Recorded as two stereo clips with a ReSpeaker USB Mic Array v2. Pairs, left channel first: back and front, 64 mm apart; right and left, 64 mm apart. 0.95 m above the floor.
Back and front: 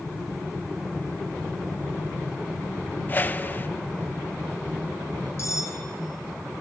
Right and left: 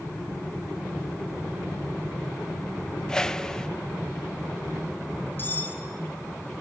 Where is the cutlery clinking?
145° right, 3.5 m.